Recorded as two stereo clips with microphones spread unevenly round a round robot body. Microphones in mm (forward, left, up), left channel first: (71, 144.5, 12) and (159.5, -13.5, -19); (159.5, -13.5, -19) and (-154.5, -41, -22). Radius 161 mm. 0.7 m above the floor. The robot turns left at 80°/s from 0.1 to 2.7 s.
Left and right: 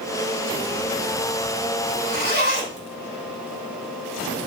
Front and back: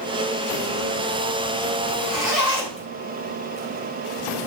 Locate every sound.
1.9 s a zipper: 160° left, 4.5 m; by 2.9 s 90° left, 4.5 m